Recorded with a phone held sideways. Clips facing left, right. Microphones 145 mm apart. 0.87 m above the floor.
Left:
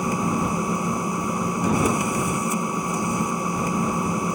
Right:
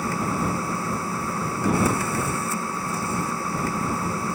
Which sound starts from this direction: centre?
A machine running, at 0.0 s.